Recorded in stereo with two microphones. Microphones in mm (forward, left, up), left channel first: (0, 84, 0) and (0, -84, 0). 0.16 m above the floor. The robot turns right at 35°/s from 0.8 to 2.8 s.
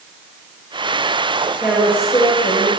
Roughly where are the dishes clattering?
No dishes clattering in this recording.